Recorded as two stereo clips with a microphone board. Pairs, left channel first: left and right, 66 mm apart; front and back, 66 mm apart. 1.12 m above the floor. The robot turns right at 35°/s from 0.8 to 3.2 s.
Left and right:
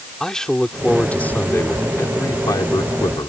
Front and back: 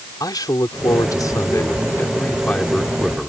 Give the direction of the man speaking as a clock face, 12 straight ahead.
12 o'clock.